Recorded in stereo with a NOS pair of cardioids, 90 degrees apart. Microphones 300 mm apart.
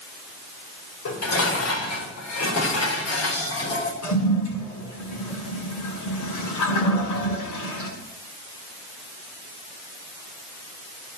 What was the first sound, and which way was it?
Dishes clattering, 55° left.